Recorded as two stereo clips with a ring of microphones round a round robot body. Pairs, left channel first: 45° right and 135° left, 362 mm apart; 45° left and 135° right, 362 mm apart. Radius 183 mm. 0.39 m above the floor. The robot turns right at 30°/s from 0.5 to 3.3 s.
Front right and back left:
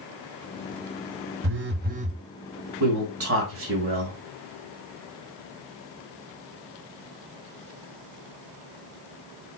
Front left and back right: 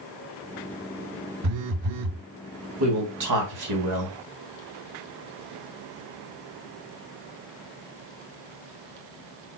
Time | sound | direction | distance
1.4 | a phone buzzing | 175° right | 0.6 m
2.8 | a man speaking | 175° left | 3.5 m